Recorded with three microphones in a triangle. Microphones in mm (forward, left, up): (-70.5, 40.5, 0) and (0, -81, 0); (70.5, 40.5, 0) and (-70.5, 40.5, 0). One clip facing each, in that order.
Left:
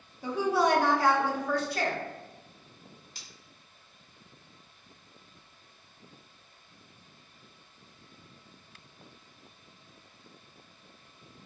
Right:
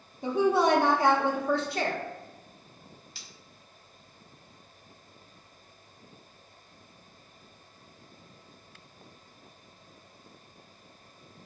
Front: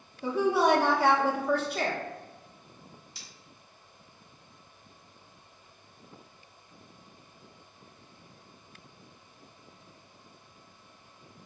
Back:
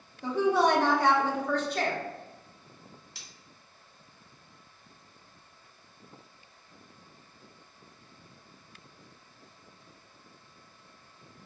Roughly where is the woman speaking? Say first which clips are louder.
Right 3 dB, even; right.